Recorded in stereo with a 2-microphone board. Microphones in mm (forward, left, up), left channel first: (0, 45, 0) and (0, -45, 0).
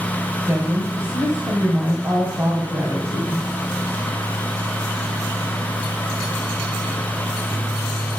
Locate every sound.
0.5 s a woman speaking: 35° right (ahead or behind), 2 m